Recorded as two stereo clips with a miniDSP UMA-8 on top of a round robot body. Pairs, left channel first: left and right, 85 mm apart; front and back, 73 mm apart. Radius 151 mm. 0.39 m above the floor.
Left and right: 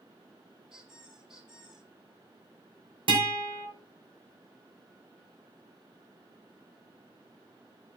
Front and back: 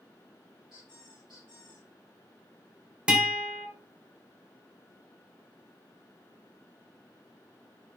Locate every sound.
0.7 s a squeak: 170° right, 7 m
3.1 s a guitar: 105° right, 2 m